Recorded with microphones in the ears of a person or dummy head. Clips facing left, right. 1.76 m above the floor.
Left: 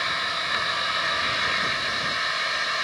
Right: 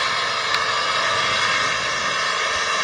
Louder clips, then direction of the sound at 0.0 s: Right 6 dB; 70° right (ahead or behind).